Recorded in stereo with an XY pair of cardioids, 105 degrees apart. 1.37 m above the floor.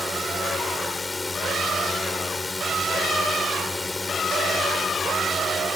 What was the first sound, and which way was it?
A drone, 20° left.